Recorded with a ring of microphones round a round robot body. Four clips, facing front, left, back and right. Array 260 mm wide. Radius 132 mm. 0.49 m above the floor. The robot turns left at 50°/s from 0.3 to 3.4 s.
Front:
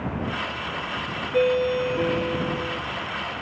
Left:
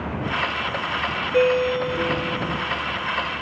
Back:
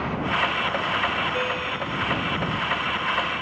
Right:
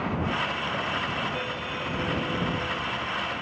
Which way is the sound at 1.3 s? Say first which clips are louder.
Left 14 dB, front 7 dB; 65° left.